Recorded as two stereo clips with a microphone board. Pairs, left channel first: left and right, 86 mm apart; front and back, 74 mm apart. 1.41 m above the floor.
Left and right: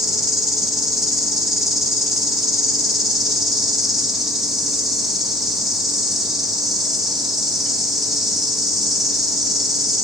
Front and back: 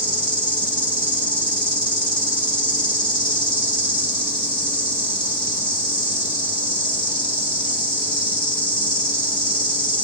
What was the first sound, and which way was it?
An insect, 5° right.